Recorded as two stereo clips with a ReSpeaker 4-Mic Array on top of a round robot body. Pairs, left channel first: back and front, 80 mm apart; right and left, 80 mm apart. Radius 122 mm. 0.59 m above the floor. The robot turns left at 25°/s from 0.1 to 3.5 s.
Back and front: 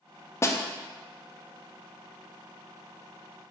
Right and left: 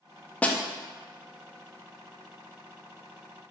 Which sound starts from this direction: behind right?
A snare drum, at 0.4 s.